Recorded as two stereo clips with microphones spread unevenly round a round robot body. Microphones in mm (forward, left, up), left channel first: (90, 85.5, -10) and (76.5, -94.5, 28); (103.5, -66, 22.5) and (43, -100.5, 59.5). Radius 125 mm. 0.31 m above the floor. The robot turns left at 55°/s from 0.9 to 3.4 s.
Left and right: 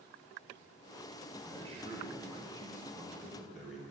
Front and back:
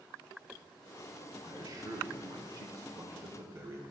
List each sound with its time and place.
1.4 s a man speaking: 105° right, 0.9 m; by 3.8 s 145° left, 0.9 m